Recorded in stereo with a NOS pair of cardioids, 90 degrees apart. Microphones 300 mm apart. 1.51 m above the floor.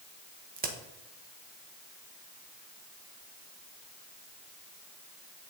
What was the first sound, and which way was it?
A crack, 30° right.